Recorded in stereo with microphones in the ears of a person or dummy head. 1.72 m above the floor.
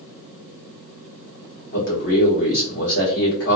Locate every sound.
1.7 s a man speaking: 60° left (ahead or behind), 1.6 m